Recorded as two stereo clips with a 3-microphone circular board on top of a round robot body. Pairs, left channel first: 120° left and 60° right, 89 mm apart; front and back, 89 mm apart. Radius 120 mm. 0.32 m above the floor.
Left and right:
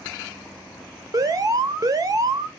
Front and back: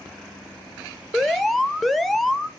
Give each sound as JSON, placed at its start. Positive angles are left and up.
{"t": 1.1, "sound": "an alarm", "azimuth_deg": -85, "distance_m": 1.1}